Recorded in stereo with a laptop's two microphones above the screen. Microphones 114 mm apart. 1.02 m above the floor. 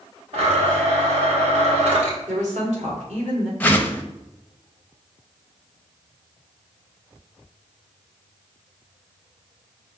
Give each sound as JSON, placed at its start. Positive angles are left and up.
{"t": 0.3, "sound": "a blender", "side_deg": -60, "distance_m": 1.4}
{"t": 2.3, "sound": "a woman speaking", "side_deg": -70, "distance_m": 1.9}
{"t": 3.6, "sound": "a whoosh", "side_deg": 15, "distance_m": 0.5}